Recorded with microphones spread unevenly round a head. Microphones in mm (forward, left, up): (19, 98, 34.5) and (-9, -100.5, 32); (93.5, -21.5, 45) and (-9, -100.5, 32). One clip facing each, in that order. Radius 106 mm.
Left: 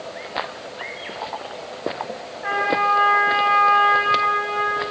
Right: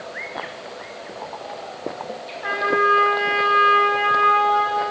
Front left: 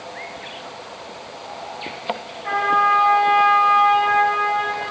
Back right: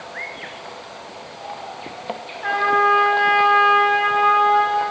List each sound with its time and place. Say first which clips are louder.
2.4 s a trumpet: right 2 dB, back right 1 dB; 140° right, 6 m